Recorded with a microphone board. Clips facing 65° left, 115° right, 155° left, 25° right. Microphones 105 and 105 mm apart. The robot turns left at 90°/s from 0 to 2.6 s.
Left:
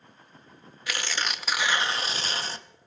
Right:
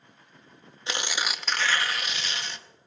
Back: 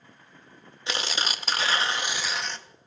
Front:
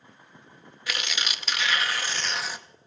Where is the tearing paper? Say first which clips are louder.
Right 1 dB, back 3 dB; 155° right, 0.6 m; by 2.6 s 45° left, 0.6 m.